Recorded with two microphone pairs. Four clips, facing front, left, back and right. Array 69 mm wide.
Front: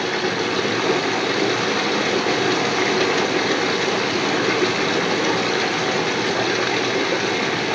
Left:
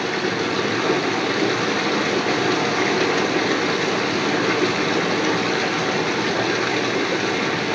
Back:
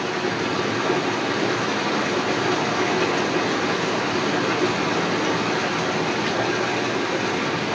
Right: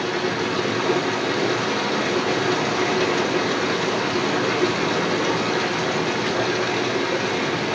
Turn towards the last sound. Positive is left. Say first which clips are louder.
# left 1 dB, front 2 dB
turn(degrees=30)